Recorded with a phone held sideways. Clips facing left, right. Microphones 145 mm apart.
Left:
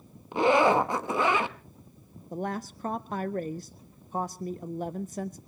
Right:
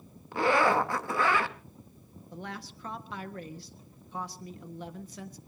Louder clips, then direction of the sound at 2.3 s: Left 9 dB; 45° left (ahead or behind).